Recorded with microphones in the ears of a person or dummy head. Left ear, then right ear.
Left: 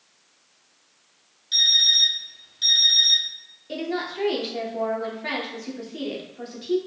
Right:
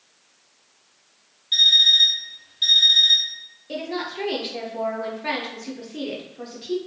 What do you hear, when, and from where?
1.5 s an alarm clock: centre (ahead or behind), 0.6 m
3.7 s a woman speaking: centre (ahead or behind), 0.6 m